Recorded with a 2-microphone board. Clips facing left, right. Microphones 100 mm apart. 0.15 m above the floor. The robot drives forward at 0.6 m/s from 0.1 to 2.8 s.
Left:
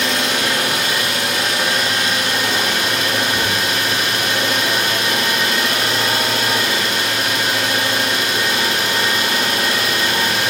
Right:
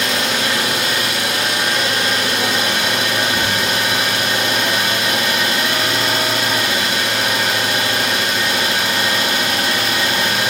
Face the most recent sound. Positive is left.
turn(degrees=0)  # may be behind; listen again after turning